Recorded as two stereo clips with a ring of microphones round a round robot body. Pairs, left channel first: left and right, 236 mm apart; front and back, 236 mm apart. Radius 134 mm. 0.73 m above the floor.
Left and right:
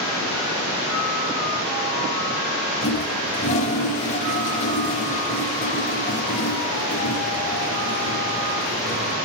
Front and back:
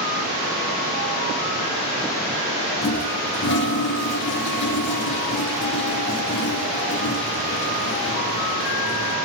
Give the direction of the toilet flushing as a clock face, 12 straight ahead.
11 o'clock.